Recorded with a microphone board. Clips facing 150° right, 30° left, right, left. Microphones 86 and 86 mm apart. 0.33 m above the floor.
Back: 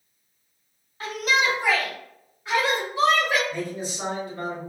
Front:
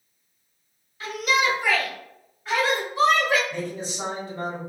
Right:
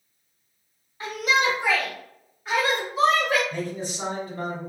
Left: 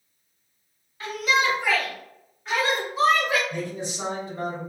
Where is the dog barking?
No dog barking in this recording.